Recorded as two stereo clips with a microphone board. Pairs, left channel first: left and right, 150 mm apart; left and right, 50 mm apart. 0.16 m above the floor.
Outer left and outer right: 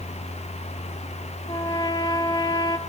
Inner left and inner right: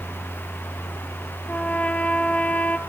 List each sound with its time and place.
1.5 s a trumpet: 30° left (ahead or behind), 0.7 m